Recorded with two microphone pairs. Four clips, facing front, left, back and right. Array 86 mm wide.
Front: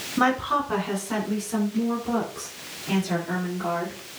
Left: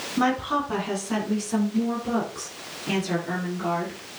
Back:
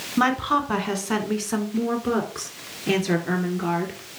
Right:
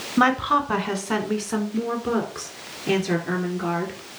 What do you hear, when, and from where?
0.2 s a woman speaking: 95° right, 1.8 m; by 4.0 s 165° right, 4 m